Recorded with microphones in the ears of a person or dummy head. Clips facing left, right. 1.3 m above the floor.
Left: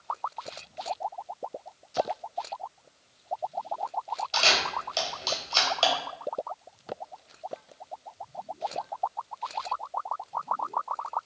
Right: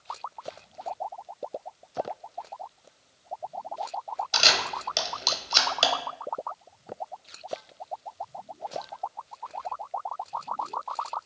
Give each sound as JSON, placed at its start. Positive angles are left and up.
{"t": 4.3, "sound": "a camera shutter", "side_deg": -20, "distance_m": 0.7}